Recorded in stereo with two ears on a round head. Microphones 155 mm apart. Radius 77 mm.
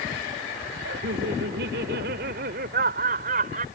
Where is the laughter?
75° right (ahead or behind); by 3.6 s 50° right (ahead or behind).